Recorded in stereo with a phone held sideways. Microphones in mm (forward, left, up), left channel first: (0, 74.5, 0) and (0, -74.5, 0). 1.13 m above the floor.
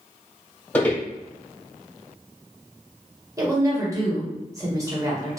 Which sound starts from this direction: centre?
Footsteps, at 0.7 s.